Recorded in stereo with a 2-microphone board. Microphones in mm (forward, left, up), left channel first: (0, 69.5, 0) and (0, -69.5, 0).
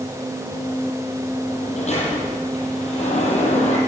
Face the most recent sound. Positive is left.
turn(degrees=55)  # may be behind; listen again after turning